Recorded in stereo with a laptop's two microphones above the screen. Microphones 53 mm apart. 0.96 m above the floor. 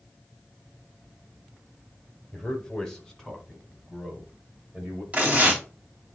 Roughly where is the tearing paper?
Right.